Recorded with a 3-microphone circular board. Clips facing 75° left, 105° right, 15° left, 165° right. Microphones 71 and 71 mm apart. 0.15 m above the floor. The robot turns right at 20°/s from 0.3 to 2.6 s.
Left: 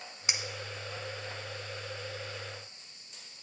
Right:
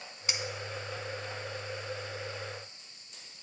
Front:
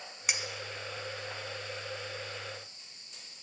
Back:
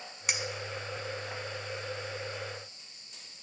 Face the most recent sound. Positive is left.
turn(degrees=150)